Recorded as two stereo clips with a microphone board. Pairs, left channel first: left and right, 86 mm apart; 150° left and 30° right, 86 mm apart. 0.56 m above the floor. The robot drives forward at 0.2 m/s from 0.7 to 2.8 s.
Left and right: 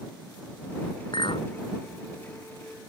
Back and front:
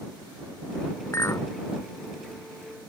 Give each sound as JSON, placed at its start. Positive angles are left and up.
{"t": 1.1, "sound": "a clink", "azimuth_deg": 95}